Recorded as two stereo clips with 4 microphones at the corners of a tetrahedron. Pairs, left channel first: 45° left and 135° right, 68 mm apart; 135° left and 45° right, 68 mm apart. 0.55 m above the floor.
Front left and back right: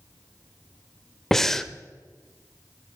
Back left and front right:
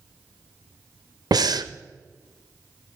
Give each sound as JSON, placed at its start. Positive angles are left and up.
{"t": 1.3, "sound": "breathing", "azimuth_deg": -40, "distance_m": 0.6}